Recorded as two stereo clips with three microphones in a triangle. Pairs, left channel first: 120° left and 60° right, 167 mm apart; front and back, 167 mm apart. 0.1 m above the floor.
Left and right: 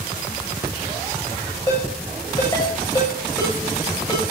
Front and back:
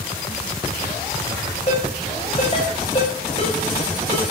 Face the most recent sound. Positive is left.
turn(degrees=55)